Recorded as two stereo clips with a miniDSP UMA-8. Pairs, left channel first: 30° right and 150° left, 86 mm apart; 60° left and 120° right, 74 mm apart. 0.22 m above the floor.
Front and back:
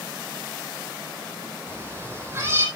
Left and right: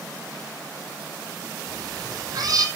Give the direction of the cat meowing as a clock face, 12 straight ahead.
5 o'clock.